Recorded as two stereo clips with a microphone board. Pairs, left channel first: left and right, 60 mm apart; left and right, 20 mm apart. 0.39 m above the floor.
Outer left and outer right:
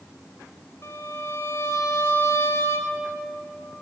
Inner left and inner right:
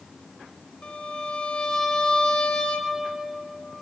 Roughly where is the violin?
Left.